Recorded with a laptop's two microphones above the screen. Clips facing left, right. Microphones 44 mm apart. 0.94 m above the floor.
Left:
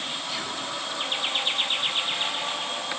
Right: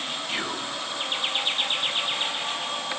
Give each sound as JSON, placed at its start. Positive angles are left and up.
{"t": 0.3, "sound": "whispering", "side_deg": -35, "distance_m": 0.8}